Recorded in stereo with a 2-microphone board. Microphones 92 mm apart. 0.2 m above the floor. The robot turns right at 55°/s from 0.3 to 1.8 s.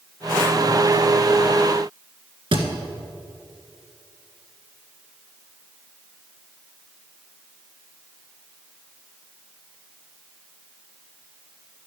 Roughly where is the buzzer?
No buzzer in this recording.